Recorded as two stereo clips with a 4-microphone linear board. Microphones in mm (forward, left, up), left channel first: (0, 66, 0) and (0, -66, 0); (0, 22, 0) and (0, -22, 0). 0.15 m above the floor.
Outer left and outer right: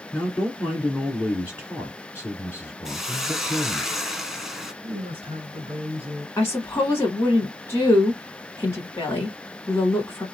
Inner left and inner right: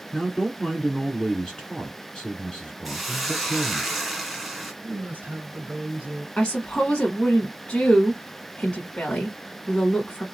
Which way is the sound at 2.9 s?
5° right (ahead or behind).